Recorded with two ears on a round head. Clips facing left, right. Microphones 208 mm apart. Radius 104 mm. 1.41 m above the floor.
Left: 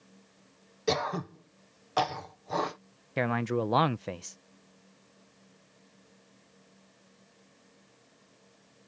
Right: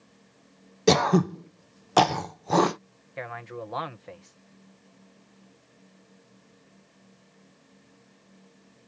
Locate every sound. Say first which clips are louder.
0.9 s throat clearing: right 10 dB; 70° right (ahead or behind)
3.2 s a man speaking: left 9 dB; 60° left (ahead or behind)